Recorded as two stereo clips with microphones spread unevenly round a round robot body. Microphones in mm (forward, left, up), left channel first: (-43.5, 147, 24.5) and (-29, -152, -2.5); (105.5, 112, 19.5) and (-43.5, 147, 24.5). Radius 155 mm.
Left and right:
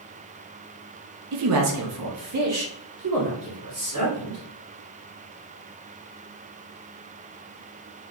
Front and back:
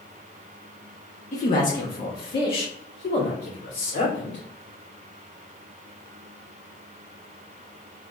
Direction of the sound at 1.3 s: 60° right.